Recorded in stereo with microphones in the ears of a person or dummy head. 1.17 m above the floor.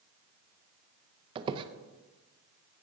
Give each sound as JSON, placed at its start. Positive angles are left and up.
{"t": 1.4, "sound": "a squeak", "side_deg": -30, "distance_m": 0.6}